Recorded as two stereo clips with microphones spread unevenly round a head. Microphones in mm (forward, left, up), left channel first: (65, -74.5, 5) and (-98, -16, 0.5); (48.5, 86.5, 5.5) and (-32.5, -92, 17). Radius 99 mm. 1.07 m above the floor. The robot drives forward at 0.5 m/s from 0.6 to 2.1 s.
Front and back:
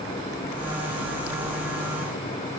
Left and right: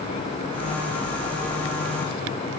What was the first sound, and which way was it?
Only background noise.